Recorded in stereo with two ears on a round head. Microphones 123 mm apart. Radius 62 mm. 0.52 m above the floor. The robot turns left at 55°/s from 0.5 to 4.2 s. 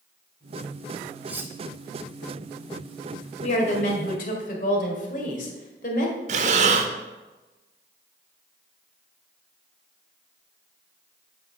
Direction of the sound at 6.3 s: 55° right (ahead or behind).